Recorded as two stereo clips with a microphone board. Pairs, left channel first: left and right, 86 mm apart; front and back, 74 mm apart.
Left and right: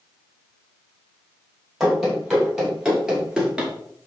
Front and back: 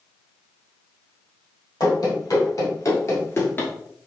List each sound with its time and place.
1.8 s running footsteps: 5° right, 2 m; by 3.7 s 25° right, 1.1 m